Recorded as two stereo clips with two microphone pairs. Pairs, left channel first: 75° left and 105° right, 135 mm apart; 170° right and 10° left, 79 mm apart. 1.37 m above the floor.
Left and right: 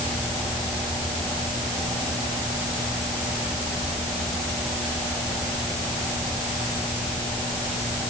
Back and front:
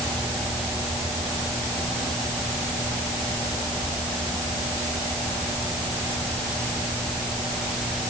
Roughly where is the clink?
No clink in this recording.